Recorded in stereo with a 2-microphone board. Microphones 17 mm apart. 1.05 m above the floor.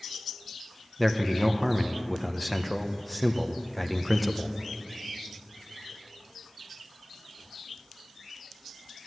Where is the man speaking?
Centre (ahead or behind), 0.7 m.